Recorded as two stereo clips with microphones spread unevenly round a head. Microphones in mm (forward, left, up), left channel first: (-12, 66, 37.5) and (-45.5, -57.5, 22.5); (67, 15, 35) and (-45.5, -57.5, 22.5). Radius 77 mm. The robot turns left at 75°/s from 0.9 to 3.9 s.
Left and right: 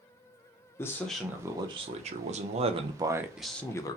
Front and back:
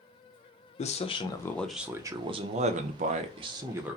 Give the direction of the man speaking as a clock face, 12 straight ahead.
12 o'clock.